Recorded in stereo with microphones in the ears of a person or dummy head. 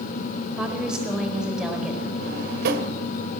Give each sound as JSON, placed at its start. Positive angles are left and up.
{"t": 0.6, "sound": "a woman speaking", "side_deg": -5, "distance_m": 4.5}
{"t": 2.2, "sound": "a drawer", "side_deg": -60, "distance_m": 2.0}